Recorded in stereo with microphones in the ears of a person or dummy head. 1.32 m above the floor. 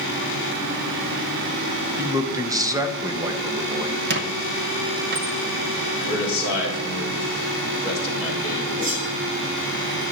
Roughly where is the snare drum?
No snare drum in this recording.